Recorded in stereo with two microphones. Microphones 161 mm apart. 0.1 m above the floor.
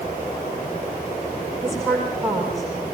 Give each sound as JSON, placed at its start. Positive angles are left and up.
{"t": 1.6, "sound": "a woman speaking", "side_deg": 0, "distance_m": 8.0}